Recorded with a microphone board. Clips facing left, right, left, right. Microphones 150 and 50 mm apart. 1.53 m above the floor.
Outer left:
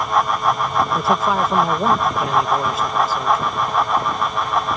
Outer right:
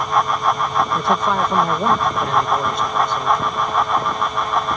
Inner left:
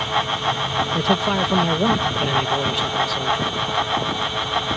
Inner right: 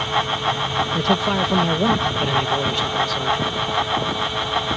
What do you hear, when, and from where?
0.9 s a man speaking: 5° left (ahead or behind)